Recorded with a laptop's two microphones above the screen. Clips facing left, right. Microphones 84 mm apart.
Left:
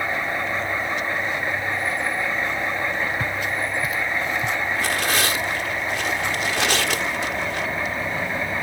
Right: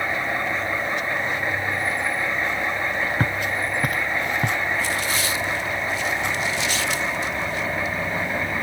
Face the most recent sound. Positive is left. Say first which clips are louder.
# left 2 dB
turn(degrees=80)